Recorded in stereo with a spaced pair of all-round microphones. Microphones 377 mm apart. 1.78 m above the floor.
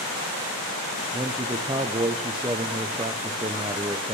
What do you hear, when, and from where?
1.1 s a man speaking: 15° right (ahead or behind), 0.5 m